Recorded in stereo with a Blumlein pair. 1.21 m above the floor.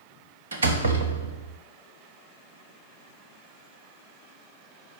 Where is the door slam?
65° right, 1.1 m.